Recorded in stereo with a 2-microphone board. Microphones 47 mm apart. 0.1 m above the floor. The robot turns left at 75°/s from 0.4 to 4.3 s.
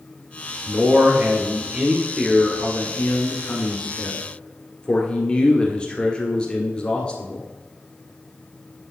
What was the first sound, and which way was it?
A man speaking, 55° right.